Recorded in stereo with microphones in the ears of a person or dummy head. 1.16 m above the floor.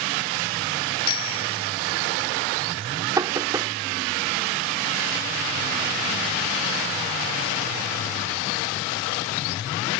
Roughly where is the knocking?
Centre.